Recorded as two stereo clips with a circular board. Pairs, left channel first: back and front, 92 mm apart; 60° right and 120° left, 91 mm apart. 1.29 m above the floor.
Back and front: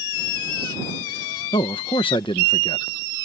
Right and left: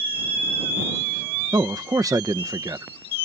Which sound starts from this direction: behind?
A man speaking, at 1.5 s.